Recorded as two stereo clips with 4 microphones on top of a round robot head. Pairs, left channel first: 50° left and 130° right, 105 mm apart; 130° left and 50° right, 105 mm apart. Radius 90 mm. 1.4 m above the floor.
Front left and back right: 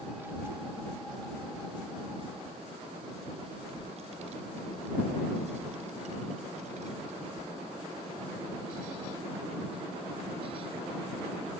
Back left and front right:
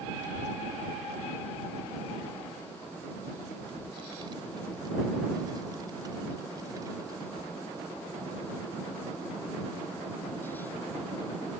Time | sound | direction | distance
0.2 | a child speaking | 55° right | ?